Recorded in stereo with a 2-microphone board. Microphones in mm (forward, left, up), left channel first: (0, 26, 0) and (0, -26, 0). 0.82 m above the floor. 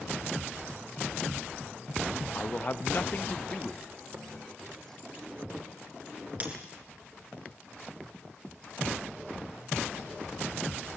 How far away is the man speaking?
About 0.9 m.